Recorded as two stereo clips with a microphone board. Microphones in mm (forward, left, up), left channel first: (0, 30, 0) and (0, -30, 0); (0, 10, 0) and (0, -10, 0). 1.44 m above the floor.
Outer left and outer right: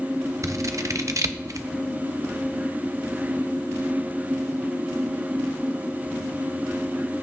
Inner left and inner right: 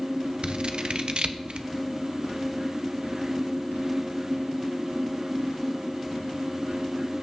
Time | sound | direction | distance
0.4 | scissors | 60° right (ahead or behind) | 0.5 m